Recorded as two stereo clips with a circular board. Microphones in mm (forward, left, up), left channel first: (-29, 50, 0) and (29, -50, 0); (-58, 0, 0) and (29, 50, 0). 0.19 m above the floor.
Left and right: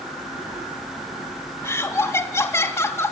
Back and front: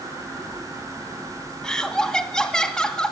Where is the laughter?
135° left, 1.2 m.